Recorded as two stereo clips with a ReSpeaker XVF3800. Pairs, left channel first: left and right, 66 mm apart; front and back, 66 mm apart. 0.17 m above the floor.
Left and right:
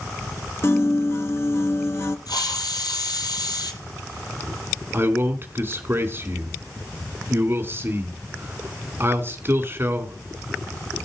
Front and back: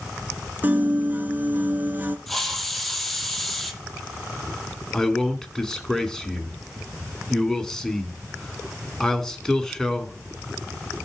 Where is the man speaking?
75° right, 1.8 m.